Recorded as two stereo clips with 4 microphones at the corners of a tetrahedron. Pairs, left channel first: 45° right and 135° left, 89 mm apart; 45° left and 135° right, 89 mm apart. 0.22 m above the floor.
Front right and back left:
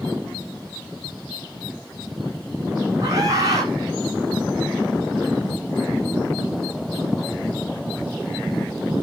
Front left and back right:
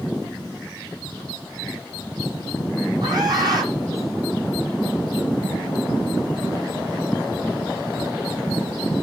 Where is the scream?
175° right, 9.5 m.